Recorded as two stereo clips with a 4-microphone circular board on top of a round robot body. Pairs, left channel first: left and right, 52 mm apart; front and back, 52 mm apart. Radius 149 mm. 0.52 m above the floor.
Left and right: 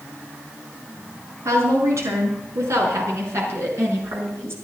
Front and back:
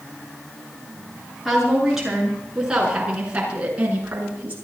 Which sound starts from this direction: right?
A woman speaking, at 1.4 s.